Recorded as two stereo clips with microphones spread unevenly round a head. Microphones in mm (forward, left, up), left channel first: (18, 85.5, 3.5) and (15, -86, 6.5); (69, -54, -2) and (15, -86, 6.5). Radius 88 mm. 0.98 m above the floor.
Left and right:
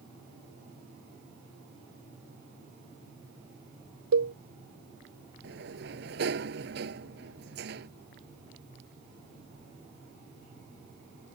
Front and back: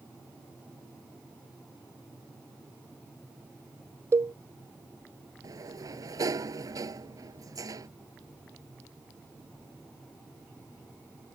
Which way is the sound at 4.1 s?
105° right.